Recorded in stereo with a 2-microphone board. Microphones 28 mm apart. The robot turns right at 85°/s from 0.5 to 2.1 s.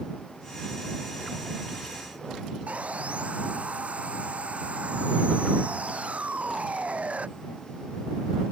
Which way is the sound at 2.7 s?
55° right (ahead or behind).